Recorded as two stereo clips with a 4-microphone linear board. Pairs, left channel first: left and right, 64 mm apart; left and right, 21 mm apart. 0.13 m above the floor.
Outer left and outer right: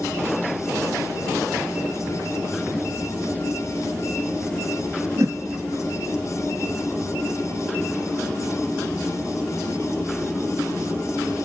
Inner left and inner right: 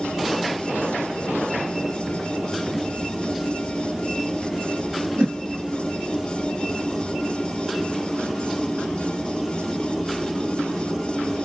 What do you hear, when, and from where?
5.2 s a whoosh: 55° right (ahead or behind), 0.7 m